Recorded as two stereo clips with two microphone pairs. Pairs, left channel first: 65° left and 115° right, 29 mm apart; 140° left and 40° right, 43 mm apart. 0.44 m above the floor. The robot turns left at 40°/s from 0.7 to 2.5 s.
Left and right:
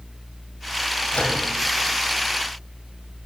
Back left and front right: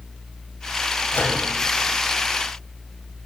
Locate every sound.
1.1 s a microwave: 100° left, 1.6 m; by 1.4 s 90° left, 1.6 m